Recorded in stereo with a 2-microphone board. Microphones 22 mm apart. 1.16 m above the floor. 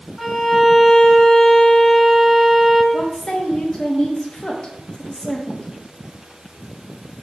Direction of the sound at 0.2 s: 15° left (ahead or behind).